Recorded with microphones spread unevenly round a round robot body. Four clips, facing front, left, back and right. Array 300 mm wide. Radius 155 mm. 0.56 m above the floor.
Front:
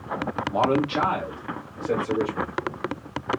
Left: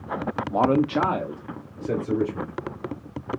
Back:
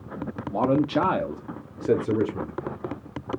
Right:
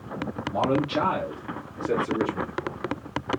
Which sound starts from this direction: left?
A man speaking, at 0.5 s.